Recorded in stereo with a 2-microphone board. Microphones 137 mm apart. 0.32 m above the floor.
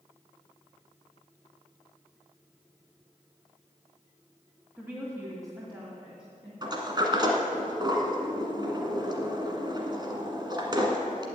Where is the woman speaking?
10° right (ahead or behind), 1.6 m; by 6.5 s 45° right (ahead or behind), 2.5 m.